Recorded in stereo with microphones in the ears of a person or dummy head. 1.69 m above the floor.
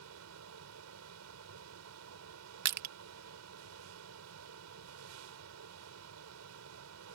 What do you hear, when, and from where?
0.0 s a fan: 85° right
2.6 s crushing: 60° right (ahead or behind)